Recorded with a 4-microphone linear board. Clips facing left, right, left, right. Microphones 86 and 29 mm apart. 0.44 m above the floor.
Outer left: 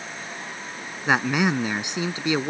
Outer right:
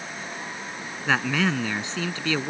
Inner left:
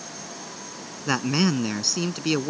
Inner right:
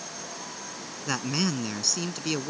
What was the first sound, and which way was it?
A man speaking, 15° left (ahead or behind).